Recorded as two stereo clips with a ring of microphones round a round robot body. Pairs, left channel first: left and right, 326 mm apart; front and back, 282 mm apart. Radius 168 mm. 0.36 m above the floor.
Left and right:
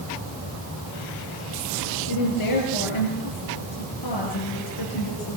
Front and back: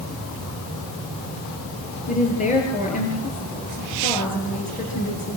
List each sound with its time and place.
2.1 s a woman speaking: 65° left, 8.5 m